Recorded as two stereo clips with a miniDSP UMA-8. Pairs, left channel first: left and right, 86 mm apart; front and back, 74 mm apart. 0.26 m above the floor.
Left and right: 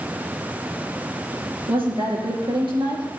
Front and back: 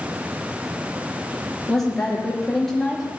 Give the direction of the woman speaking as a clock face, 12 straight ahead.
3 o'clock.